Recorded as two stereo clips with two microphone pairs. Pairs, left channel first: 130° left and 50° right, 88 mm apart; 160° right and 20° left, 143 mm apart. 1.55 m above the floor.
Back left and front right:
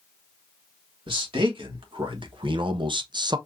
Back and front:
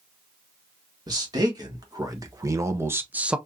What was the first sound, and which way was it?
A man speaking, 40° right.